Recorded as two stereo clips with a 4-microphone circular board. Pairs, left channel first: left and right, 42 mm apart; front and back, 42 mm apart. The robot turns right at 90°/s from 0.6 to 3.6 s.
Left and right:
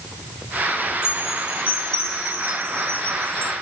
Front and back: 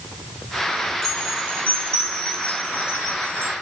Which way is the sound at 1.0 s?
85° left.